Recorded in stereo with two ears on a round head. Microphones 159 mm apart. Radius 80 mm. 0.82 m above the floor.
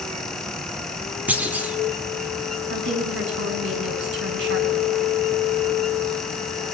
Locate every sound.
1.3 s a clunk: 10° right (ahead or behind), 2.5 m
2.7 s a woman speaking: 70° right (ahead or behind), 7 m